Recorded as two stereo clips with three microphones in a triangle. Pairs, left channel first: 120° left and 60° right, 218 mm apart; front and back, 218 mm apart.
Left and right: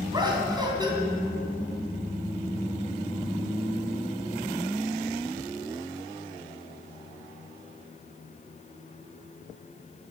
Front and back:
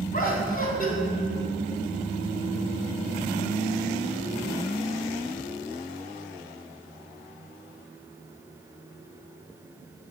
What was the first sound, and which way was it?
Laughter, straight ahead.